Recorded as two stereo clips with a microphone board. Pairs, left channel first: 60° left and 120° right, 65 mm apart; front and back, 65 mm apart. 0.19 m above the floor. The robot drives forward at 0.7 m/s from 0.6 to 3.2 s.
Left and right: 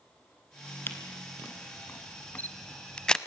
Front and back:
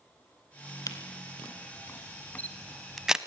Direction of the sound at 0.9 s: 10° left.